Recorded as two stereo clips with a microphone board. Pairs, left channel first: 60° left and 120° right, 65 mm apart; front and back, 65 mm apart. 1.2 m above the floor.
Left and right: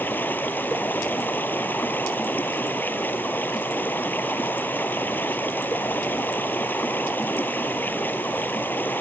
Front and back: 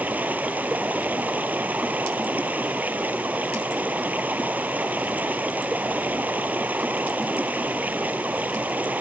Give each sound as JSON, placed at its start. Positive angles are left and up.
{"t": 0.0, "sound": "running water", "azimuth_deg": 120}